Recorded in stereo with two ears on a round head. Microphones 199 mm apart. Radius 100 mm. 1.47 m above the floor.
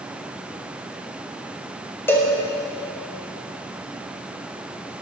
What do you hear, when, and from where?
2.1 s a cowbell: 10° left (ahead or behind), 4 m